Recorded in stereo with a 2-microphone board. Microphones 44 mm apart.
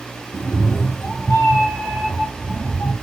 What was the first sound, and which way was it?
A cat meowing, 65° left (ahead or behind).